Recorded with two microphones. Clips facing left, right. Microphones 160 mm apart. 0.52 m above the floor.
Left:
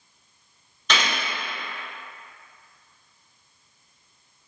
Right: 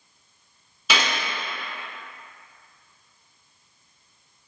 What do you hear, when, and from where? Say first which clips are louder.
0.9 s a gunshot: right 1 dB; 10° right (ahead or behind), 0.9 m